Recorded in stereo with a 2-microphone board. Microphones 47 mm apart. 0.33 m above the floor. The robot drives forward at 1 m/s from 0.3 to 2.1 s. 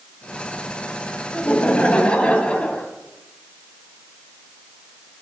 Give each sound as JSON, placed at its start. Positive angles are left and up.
{"t": 1.3, "sound": "laughter", "side_deg": 30, "distance_m": 1.5}